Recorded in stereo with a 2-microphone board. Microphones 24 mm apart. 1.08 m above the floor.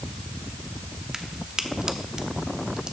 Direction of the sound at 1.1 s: 40° right (ahead or behind).